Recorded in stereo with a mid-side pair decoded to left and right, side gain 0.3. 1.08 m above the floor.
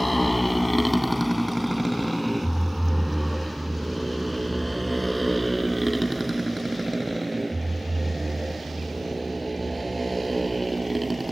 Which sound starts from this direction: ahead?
A motorcycle, at 0.0 s.